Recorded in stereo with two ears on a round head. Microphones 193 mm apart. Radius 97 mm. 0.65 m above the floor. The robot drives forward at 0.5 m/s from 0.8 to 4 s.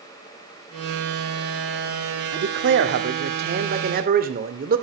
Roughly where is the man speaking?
Right.